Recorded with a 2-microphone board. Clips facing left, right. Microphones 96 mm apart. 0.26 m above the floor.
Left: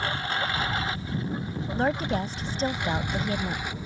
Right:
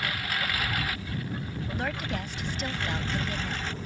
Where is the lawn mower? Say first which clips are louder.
Left 3 dB; 30° left (ahead or behind); by 3.9 s 10° left (ahead or behind).